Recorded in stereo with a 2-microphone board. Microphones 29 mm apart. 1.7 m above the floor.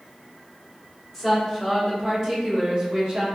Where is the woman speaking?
5° left (ahead or behind), 1.9 m; by 3.2 s 35° right (ahead or behind), 1.2 m.